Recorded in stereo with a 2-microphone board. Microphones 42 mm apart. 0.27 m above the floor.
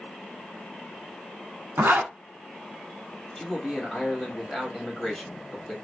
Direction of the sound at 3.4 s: 15° left (ahead or behind).